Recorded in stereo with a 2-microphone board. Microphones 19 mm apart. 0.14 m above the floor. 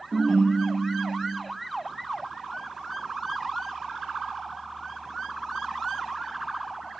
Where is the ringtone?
25° right (ahead or behind), 3 m.